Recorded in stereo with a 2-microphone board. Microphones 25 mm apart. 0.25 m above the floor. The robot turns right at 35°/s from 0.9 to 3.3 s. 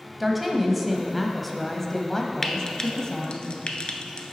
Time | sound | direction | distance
0.2 | a woman speaking | 15° right | 1.1 m
2.4 | frying | 10° left (ahead or behind) | 0.8 m